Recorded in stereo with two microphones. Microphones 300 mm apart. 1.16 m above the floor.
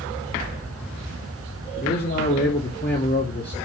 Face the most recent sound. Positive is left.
turn(degrees=35)  # may be behind; listen again after turning